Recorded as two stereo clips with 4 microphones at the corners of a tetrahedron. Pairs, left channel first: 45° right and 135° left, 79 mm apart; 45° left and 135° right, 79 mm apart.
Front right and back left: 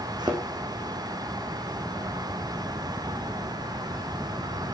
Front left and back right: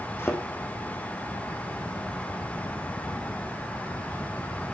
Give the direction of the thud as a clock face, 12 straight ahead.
9 o'clock.